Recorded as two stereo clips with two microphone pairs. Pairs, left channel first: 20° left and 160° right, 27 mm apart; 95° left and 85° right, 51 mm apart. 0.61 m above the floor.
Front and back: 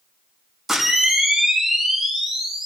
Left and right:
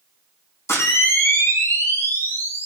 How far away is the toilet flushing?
I don't hear a toilet flushing.